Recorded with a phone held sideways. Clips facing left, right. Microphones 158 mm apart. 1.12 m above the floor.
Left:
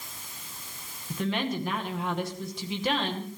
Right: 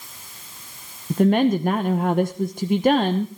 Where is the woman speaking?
50° right (ahead or behind), 0.9 m.